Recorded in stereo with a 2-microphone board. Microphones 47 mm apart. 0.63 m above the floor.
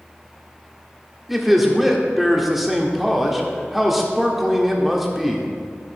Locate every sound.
1.3 s a man speaking: 5° right (ahead or behind), 1.4 m